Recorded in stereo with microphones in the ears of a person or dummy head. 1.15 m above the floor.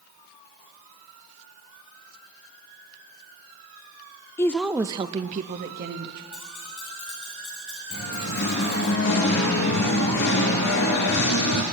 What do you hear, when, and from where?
4.4 s a woman speaking: 15° left (ahead or behind), 0.5 m; by 6.2 s 60° right (ahead or behind), 1.2 m
6.3 s keys jangling: 40° left (ahead or behind), 3.5 m
7.9 s singing: 70° left (ahead or behind), 3.5 m